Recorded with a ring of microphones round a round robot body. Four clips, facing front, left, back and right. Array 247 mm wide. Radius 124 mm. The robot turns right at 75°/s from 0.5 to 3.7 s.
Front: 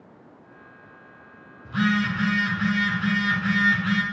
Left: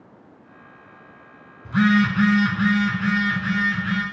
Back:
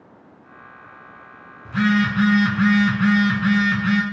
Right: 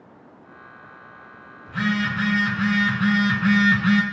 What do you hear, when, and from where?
1.6 s a phone buzzing: 90° left, 1.6 m; by 4.0 s 115° right, 1.6 m